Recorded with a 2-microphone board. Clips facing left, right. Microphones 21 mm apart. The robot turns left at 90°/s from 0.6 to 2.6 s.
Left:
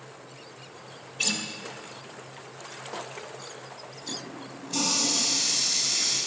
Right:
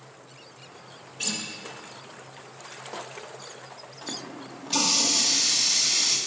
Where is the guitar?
25° left (ahead or behind), 0.7 m; by 1.4 s 30° left (ahead or behind), 0.7 m.